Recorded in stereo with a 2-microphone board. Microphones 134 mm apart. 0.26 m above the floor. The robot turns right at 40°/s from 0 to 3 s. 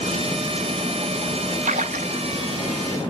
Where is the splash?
75° right (ahead or behind), 0.5 m; by 2.1 s 85° right, 0.5 m.